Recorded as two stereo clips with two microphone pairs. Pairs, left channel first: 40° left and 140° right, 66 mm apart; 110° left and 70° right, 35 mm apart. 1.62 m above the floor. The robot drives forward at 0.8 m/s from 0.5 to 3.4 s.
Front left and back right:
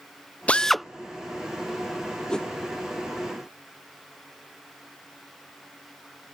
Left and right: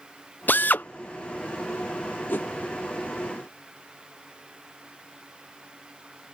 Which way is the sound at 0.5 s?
110° left.